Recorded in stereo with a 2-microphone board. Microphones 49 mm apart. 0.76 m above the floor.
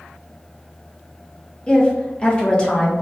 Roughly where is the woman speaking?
Left.